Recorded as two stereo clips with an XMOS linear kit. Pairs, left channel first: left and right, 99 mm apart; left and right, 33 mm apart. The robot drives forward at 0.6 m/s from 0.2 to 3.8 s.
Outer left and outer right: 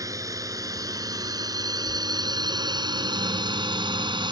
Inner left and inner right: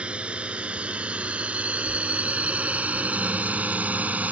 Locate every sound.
0.0 s a drone: 35° right (ahead or behind); by 4.3 s 50° right (ahead or behind)